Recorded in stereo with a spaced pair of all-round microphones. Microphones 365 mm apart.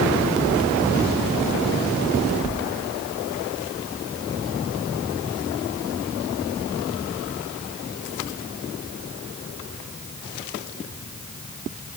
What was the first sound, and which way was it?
Only background noise.